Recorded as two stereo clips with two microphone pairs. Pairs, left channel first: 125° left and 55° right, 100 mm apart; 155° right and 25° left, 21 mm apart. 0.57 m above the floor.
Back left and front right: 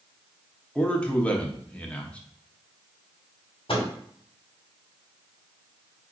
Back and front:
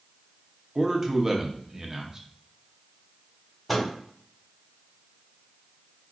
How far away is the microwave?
About 1.3 m.